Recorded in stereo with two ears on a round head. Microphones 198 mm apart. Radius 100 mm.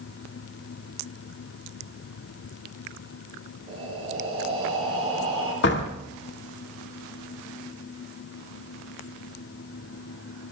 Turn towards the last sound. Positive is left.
turn(degrees=55)  # may be behind; listen again after turning